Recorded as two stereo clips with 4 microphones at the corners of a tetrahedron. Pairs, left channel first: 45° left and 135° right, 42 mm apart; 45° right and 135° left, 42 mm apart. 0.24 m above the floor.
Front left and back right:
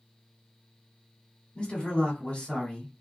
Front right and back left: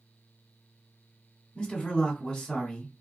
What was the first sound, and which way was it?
A man speaking, 15° left.